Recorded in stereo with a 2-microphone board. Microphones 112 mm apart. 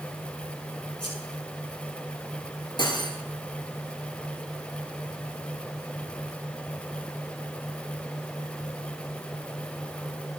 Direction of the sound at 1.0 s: 55° left (ahead or behind).